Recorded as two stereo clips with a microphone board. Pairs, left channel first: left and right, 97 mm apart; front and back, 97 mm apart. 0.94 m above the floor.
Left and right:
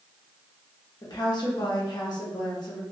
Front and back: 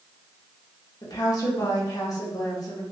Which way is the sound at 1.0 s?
50° left.